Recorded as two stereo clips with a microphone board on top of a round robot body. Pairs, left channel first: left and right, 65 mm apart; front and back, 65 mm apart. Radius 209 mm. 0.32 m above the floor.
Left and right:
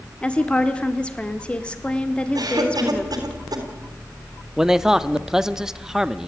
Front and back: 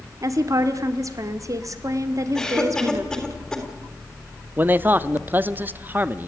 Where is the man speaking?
160° right, 1.0 m.